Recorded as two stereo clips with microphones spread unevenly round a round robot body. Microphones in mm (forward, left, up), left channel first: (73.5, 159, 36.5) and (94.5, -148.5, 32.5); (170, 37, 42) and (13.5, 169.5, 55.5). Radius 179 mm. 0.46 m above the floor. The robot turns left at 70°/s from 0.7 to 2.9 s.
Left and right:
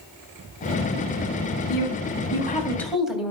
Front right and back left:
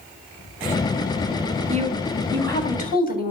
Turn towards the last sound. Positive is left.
turn(degrees=0)